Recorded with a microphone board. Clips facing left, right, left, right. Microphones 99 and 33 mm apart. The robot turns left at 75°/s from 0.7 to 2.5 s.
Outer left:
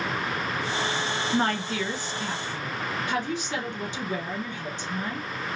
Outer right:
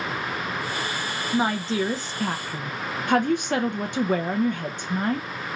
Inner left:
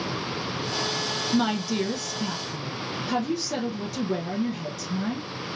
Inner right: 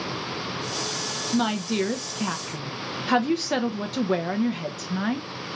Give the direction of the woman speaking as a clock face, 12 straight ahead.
12 o'clock.